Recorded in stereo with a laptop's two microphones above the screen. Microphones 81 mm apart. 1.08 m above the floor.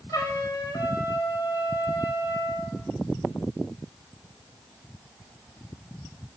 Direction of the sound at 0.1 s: 45° left (ahead or behind).